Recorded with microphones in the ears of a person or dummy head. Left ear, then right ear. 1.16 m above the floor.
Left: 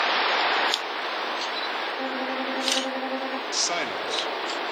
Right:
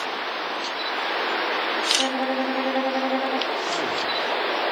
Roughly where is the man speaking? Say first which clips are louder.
Right 2 dB; left.